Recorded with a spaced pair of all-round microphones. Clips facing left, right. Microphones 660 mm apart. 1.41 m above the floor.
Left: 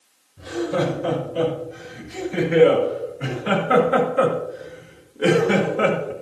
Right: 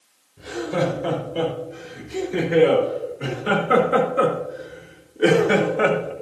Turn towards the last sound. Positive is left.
turn(degrees=45)  # may be behind; listen again after turning